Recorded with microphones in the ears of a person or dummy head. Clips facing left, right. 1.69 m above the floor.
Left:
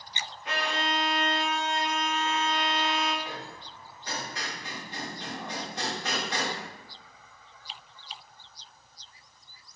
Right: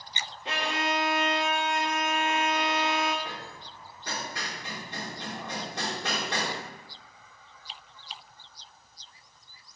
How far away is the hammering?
About 2.0 m.